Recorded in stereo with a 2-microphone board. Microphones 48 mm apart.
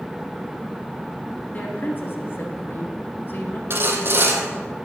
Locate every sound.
1.5 s a woman speaking: 35° left (ahead or behind), 1.6 m; by 3.6 s 45° left (ahead or behind), 2.5 m
3.7 s sawing: 50° right (ahead or behind), 1.6 m